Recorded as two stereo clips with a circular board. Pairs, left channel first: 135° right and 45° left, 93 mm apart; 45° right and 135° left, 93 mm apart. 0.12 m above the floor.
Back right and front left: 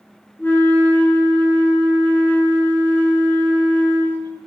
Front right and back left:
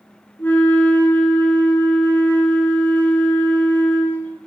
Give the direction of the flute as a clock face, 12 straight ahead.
3 o'clock.